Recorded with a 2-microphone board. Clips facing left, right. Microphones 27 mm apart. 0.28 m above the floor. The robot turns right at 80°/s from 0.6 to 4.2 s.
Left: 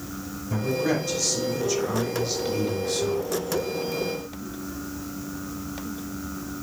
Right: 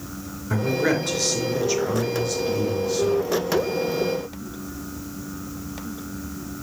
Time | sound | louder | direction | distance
0.5 | a man speaking | right 3 dB | 110° right | 4.5 m